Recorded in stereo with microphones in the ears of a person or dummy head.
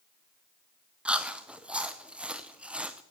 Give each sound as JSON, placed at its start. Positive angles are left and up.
{"t": 1.1, "sound": "chewing", "side_deg": -10, "distance_m": 0.5}